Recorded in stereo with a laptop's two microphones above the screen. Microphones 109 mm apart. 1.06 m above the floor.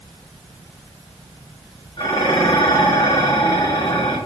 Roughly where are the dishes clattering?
Left.